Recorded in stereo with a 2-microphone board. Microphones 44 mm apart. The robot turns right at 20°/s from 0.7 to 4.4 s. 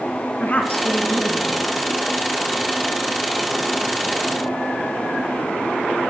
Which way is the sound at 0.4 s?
40° left (ahead or behind).